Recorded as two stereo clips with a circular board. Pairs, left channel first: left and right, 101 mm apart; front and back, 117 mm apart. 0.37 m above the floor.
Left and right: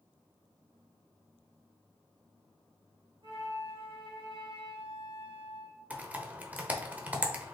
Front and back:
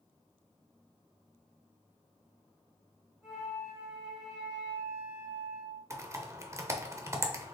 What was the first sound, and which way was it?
A flute, 95° right.